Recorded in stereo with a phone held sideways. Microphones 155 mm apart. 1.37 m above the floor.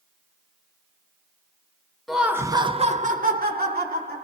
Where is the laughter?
Centre (ahead or behind), 0.6 m; by 4.2 s 85° right, 1.0 m.